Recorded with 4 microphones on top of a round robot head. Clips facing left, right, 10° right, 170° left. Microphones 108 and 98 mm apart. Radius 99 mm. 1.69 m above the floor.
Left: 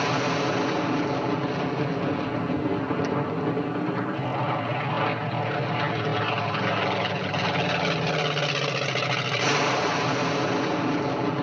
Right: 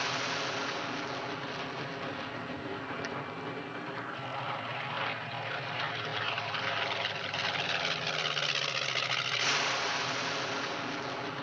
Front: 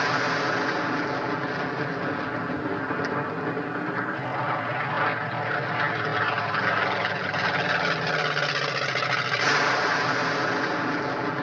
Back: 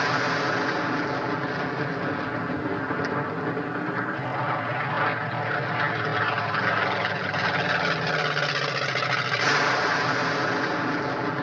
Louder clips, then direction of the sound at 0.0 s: Left 11 dB, even; 85° left.